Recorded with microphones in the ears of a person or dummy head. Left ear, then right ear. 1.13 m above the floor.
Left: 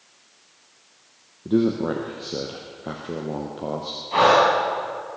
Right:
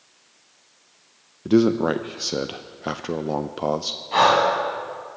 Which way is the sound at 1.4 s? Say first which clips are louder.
Right 3 dB; 55° right (ahead or behind).